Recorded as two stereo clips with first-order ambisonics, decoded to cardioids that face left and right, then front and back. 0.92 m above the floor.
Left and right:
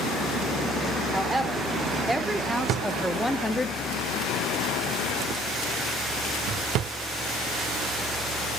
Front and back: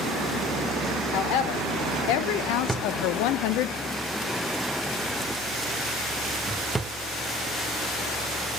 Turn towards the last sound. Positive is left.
turn(degrees=-100)